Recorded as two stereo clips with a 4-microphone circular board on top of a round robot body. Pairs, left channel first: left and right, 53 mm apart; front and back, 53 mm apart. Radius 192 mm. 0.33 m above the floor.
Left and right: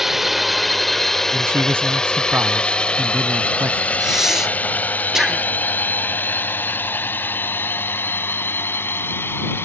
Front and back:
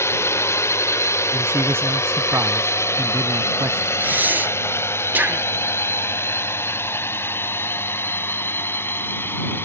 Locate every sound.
0.0 s a drone: 5° right; by 9.7 s 45° left
1.3 s a man speaking: 140° right
4.0 s breathing: 165° right